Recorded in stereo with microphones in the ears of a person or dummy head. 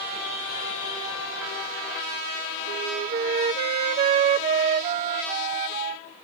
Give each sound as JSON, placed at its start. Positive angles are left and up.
{"t": 2.7, "sound": "a flute", "side_deg": -35}